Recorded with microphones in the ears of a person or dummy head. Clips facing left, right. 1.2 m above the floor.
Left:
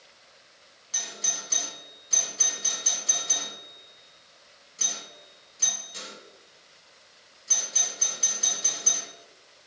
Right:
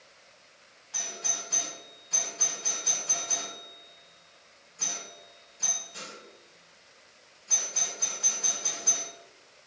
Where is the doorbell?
25° left (ahead or behind), 1.0 m.